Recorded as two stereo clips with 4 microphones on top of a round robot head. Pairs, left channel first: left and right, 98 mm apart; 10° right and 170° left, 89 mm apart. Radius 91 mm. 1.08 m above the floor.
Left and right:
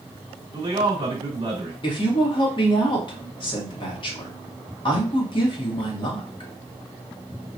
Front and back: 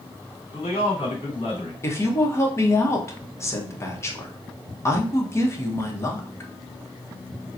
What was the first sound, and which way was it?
A man speaking, 35° right.